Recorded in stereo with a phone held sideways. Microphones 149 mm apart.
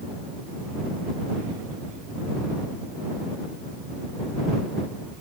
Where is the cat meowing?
I don't hear a cat meowing.